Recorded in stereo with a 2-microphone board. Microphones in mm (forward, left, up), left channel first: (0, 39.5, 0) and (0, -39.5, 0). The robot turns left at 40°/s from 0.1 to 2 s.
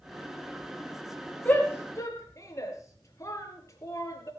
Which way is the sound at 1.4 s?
20° left (ahead or behind).